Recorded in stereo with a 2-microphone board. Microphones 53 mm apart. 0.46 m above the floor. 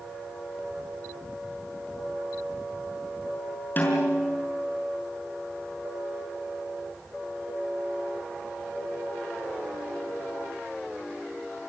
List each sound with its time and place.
3.8 s a snare drum: 35° left (ahead or behind), 6.5 m